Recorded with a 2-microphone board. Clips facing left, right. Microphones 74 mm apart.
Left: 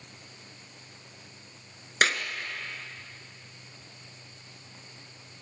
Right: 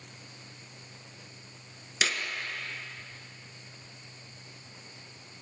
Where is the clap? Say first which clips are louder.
Left 6 dB; 50° left (ahead or behind), 1.8 m.